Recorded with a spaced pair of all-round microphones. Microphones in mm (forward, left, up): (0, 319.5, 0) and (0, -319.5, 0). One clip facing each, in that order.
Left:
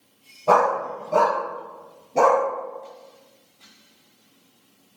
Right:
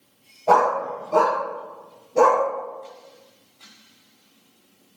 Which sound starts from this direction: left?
A dog barking, at 0.5 s.